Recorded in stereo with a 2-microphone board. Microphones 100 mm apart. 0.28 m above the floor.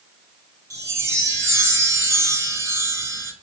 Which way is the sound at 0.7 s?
30° right (ahead or behind).